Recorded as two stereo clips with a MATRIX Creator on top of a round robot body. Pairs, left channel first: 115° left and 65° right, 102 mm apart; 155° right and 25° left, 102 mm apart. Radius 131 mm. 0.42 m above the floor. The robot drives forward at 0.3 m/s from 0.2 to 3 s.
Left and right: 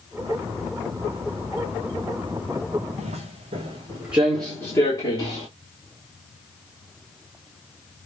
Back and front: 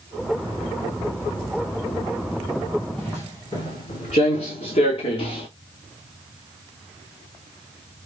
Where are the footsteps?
80° right, 0.8 m; by 5.5 s 160° left, 1.0 m.